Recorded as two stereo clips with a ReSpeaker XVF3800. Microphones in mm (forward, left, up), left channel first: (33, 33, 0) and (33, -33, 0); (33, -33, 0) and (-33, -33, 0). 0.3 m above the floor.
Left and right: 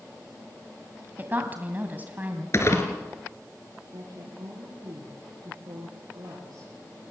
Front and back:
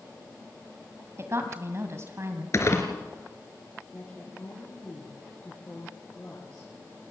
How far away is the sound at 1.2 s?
About 2 m.